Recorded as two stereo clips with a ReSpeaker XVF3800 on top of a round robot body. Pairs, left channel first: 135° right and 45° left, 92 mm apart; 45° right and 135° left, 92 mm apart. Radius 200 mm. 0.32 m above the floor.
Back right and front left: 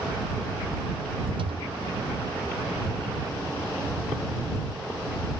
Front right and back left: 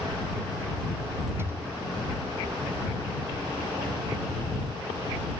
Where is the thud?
70° left.